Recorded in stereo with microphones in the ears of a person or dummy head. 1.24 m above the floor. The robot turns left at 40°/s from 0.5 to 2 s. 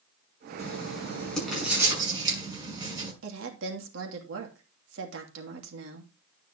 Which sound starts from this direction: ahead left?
Writing, at 0.6 s.